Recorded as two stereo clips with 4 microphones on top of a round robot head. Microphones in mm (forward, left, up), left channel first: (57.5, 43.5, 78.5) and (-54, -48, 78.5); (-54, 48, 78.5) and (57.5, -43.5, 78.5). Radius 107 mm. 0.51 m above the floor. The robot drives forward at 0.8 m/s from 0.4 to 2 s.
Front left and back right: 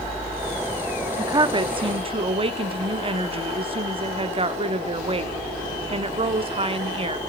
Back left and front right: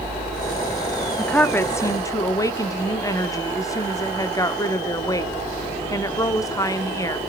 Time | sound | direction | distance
1.2 | a woman speaking | 140° right | 1.2 m